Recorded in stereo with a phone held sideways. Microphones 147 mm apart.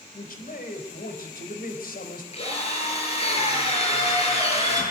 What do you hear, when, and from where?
0.1 s a man speaking: 75° left (ahead or behind), 4.5 m
2.3 s a drill: 45° left (ahead or behind), 8 m